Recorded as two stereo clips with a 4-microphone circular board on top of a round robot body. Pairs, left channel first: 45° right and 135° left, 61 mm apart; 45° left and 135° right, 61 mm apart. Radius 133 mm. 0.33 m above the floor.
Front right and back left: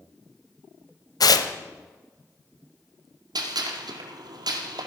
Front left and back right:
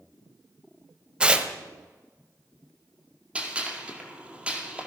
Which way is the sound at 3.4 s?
150° left.